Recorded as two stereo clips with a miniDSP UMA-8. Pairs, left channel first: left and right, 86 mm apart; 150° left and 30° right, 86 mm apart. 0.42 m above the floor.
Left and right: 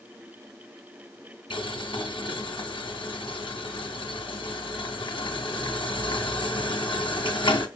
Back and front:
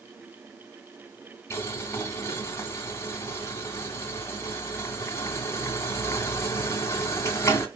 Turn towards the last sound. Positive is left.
turn(degrees=95)